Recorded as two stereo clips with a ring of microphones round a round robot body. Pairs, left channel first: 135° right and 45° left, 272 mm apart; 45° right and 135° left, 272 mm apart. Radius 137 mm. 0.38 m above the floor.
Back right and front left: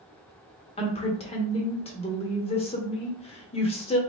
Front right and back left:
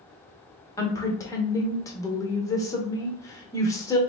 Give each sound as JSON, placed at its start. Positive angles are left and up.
{"t": 0.8, "sound": "a woman speaking", "azimuth_deg": -105, "distance_m": 0.8}